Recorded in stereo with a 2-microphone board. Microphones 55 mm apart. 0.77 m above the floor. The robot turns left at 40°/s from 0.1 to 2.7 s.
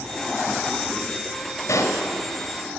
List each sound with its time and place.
1.7 s a pop: 75° left (ahead or behind), 2.0 m; by 2.0 s 85° left, 2.0 m